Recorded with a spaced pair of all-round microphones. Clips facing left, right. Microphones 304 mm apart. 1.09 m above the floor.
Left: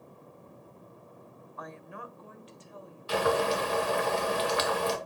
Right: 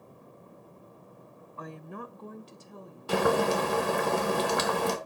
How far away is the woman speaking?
About 0.6 m.